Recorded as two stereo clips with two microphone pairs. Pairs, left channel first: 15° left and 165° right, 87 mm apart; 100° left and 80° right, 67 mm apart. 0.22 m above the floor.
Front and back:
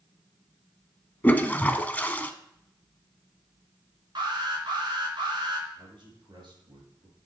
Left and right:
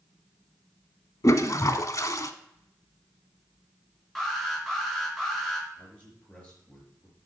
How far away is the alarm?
About 3.5 m.